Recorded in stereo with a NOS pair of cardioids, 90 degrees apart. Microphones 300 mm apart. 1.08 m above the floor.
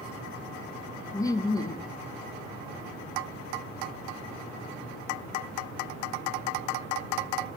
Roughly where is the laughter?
Ahead.